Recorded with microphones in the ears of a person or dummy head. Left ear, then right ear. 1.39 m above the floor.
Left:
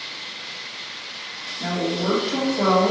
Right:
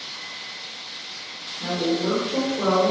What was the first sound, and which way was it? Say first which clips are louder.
A woman speaking: right 1 dB; 40° left (ahead or behind).